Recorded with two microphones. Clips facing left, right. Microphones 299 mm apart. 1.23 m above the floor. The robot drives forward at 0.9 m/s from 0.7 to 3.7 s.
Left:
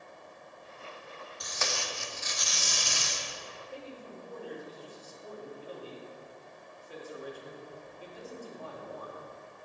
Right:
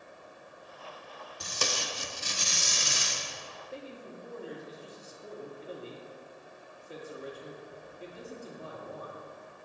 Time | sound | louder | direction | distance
1.4 | tape being pulled | right 2 dB | 35° right (ahead or behind) | 0.7 m
3.7 | a man speaking | right 1 dB | 25° right (ahead or behind) | 1.8 m